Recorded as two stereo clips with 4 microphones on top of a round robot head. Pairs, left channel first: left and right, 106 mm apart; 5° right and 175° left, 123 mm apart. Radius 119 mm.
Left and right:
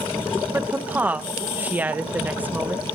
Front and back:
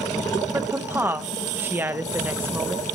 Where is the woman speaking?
140° right, 1.1 m.